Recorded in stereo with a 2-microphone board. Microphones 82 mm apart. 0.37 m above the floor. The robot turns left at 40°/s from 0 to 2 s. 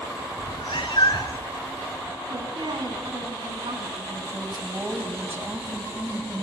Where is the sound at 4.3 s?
25° right (ahead or behind), 2.5 m.